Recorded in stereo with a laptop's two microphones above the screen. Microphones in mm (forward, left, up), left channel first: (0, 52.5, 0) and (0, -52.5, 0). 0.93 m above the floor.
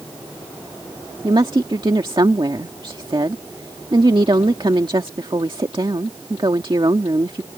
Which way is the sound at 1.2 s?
50° right (ahead or behind).